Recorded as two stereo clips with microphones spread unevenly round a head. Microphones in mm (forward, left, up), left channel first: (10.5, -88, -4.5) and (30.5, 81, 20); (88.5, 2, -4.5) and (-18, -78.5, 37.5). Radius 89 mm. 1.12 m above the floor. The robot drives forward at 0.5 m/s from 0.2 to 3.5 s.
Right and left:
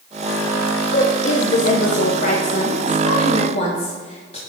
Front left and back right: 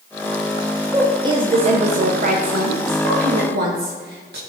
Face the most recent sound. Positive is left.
turn(degrees=-145)